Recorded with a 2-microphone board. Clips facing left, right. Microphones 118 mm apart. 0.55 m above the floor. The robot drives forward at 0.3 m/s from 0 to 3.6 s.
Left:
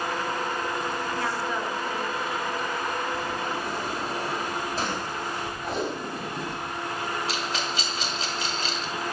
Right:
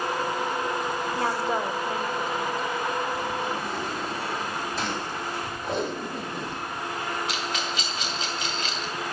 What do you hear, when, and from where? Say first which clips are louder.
1.1 s a woman speaking: right 3 dB; 30° right (ahead or behind), 0.8 m; by 2.7 s 25° right (ahead or behind), 0.9 m
3.1 s a sliding door: right 1 dB; 45° left (ahead or behind), 3 m; by 6.6 s 40° left (ahead or behind), 3.5 m
5.6 s tape being pulled: right 1 dB; centre (ahead or behind), 1.2 m
7.3 s a rattle: even; 35° left (ahead or behind), 1.6 m